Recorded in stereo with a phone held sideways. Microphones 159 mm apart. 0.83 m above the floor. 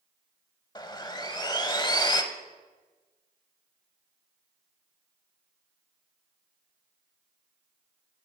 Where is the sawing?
25° left (ahead or behind), 0.8 m.